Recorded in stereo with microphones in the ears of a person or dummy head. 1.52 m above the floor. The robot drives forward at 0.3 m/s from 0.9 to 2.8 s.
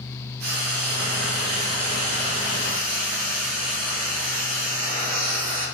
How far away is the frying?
About 1.6 m.